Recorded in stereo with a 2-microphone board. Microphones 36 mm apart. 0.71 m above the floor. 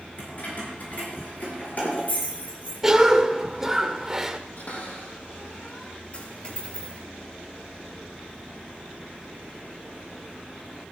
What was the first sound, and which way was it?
Keys jangling, 55° left (ahead or behind).